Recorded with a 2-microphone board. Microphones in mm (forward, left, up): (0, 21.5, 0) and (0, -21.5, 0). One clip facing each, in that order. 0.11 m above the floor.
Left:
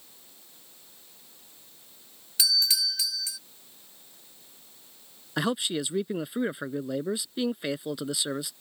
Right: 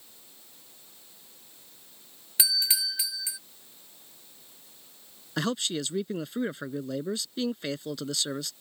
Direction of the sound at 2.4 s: 20° right (ahead or behind).